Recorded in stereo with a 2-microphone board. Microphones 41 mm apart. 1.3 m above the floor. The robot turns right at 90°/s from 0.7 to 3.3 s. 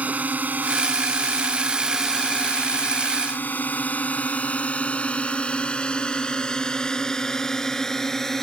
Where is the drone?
40° right (ahead or behind); by 8.4 s 10° left (ahead or behind).